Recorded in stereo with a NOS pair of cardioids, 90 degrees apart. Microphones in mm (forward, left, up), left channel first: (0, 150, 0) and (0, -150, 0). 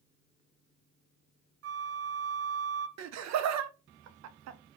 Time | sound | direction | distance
1.6 | a flute | 60° right | 0.6 m
3.0 | laughter | 70° right | 0.6 m